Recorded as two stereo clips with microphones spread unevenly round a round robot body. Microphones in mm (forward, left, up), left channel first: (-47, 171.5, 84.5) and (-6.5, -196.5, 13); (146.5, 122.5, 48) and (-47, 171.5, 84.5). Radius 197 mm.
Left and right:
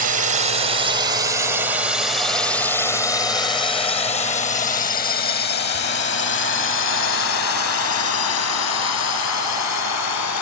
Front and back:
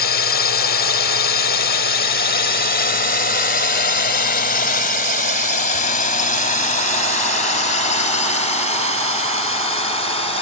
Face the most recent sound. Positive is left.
turn(degrees=45)